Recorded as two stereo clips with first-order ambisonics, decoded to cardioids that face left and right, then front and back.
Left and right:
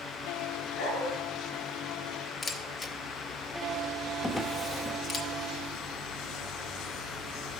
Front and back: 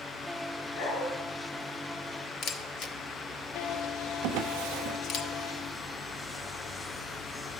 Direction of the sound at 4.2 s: 175° left.